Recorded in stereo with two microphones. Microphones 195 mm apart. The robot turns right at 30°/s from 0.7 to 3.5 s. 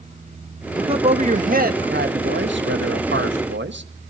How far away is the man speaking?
About 1.5 m.